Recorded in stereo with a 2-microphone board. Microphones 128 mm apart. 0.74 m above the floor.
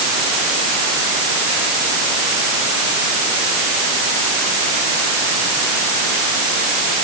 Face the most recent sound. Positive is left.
No sound to turn to.